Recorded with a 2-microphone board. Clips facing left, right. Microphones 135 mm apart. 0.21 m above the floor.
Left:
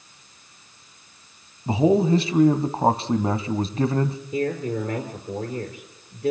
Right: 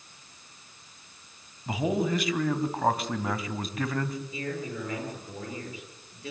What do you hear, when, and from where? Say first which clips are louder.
1.7 s a man speaking: left 9 dB; 30° left (ahead or behind), 1.2 m
4.3 s a man speaking: left 9 dB; 45° left (ahead or behind), 4 m